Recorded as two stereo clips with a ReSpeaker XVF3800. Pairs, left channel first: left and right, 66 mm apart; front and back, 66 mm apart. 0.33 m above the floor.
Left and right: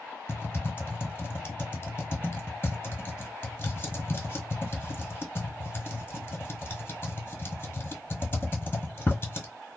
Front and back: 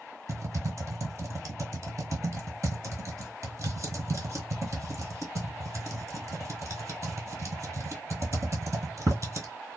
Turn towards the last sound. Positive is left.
turn(degrees=145)